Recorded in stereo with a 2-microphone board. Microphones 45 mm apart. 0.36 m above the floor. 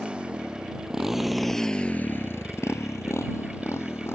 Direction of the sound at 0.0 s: 25° right (ahead or behind).